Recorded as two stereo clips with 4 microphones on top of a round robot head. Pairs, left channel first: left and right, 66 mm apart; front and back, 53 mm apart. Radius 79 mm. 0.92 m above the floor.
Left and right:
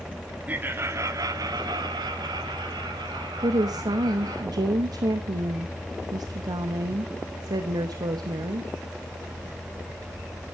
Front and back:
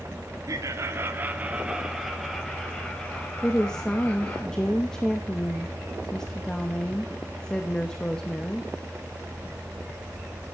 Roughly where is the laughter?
Behind right.